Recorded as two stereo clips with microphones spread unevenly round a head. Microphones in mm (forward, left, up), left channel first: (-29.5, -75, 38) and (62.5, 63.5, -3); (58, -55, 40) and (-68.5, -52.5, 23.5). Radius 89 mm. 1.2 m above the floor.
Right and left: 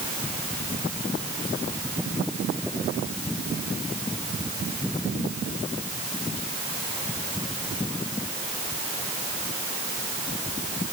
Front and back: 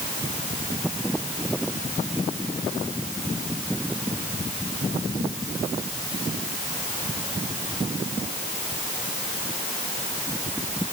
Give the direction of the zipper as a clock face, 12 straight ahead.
I don't hear a zipper.